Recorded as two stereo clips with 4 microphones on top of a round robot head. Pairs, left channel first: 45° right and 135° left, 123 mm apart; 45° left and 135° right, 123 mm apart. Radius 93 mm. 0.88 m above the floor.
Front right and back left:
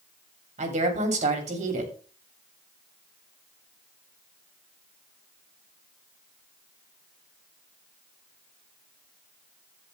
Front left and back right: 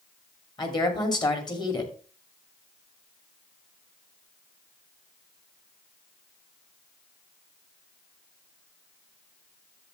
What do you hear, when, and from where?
0.6 s a woman speaking: 105° left, 2.5 m